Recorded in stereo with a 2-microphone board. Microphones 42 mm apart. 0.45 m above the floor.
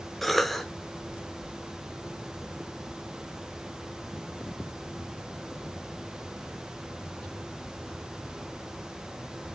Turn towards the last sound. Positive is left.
turn(degrees=5)  # may be behind; listen again after turning